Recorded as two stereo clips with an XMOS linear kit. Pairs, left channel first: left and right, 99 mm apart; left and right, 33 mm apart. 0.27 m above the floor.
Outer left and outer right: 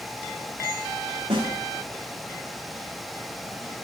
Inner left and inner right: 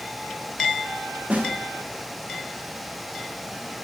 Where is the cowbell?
No cowbell in this recording.